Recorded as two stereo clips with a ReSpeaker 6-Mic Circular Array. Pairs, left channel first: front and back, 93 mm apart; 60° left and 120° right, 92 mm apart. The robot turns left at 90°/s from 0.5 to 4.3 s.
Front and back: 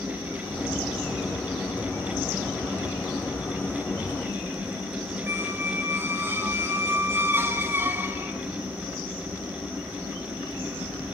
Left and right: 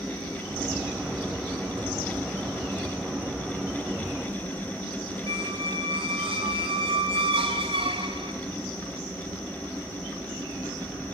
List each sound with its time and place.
5.3 s a squeak: 115° right, 1.7 m